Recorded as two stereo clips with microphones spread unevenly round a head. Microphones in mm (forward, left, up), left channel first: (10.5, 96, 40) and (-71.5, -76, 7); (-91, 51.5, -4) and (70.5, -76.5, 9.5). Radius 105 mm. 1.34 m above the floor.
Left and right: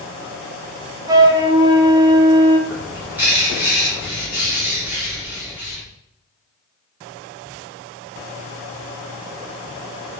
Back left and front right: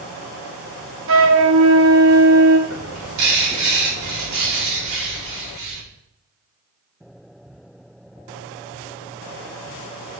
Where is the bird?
35° right, 4.5 m.